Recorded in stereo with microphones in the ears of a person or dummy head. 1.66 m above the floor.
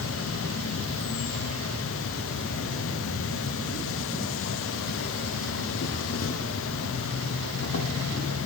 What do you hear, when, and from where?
0.0 s an insect: 65° left (ahead or behind), 0.9 m